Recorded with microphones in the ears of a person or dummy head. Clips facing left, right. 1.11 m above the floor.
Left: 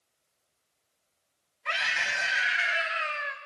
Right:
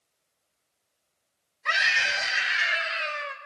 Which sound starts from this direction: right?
A scream, at 1.6 s.